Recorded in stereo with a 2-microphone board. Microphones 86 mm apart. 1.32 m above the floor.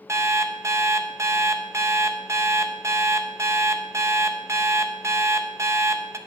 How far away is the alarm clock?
About 0.6 m.